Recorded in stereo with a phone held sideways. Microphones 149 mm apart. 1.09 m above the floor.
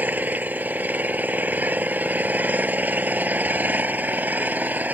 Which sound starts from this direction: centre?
An engine running, at 0.0 s.